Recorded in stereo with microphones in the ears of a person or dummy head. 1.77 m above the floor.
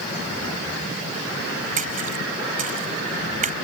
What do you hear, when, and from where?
1.8 s a splash: 55° right (ahead or behind)